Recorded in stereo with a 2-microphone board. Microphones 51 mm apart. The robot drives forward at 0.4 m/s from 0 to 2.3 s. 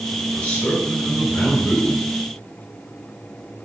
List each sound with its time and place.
0.3 s a man speaking: 20° left (ahead or behind), 1.8 m; by 2.1 s 15° left (ahead or behind), 2.5 m